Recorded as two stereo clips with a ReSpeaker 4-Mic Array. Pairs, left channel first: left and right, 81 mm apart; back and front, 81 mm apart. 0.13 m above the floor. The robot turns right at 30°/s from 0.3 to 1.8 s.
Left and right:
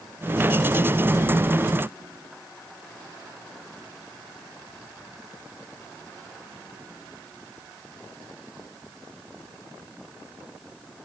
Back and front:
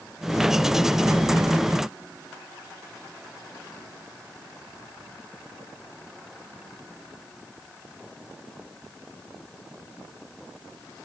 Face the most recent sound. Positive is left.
No sound to turn to.